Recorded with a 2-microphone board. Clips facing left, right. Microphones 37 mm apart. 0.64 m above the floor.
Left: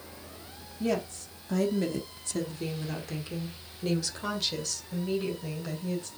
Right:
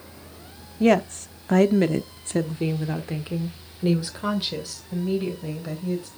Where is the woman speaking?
55° right (ahead or behind), 0.9 m; by 6.1 s 10° right (ahead or behind), 2.5 m.